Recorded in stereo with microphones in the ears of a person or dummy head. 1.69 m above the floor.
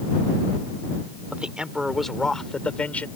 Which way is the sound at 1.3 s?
5° right (ahead or behind).